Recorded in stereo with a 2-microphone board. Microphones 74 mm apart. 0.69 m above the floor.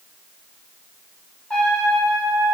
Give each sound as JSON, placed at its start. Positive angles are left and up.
{"t": 1.5, "sound": "a trumpet", "side_deg": 10, "distance_m": 2.5}